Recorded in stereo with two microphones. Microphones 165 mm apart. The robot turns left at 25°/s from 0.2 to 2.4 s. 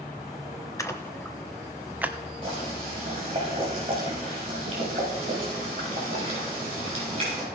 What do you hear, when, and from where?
0.8 s a splash: 20° left (ahead or behind), 0.9 m; by 2.1 s 10° right (ahead or behind), 0.9 m
2.4 s boiling: 35° right (ahead or behind), 6 m